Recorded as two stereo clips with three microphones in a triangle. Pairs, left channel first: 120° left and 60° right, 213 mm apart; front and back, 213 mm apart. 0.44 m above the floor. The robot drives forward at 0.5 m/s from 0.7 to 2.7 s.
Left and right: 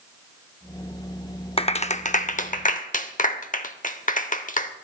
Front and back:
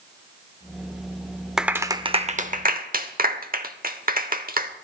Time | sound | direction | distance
1.6 | a clap | 95° left | 0.6 m